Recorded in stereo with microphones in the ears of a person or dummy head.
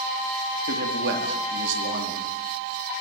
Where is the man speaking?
60° right (ahead or behind), 4.5 m; by 2.3 s 80° right, 4.5 m.